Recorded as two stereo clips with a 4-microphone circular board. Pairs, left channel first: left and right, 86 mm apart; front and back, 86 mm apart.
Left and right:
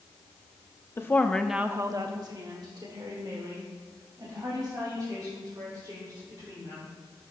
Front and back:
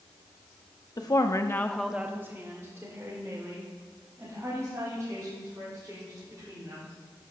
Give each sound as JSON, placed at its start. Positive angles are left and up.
{"t": 1.0, "sound": "a woman speaking", "azimuth_deg": 35, "distance_m": 1.0}